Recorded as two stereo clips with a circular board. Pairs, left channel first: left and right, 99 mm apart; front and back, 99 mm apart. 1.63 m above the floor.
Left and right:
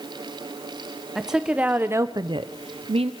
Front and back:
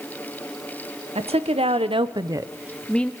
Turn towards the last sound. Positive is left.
turn(degrees=-75)